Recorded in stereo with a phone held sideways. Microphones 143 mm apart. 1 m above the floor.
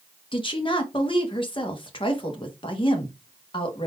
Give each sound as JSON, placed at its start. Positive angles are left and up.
{"t": 0.3, "sound": "a woman speaking", "side_deg": 35, "distance_m": 1.1}